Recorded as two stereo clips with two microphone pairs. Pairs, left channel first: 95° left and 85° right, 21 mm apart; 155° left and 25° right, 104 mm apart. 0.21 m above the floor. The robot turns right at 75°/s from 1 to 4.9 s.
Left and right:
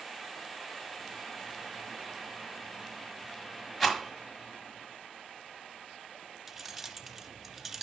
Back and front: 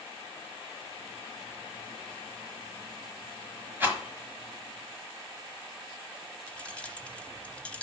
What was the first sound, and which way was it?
A rattle, 15° left.